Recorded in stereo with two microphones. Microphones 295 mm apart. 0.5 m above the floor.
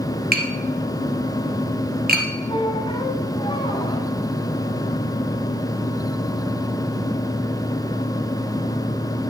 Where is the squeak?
15° left (ahead or behind), 1.2 m.